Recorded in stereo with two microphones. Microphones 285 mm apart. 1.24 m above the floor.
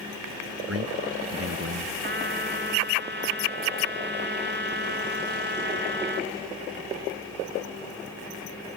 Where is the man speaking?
55° right (ahead or behind).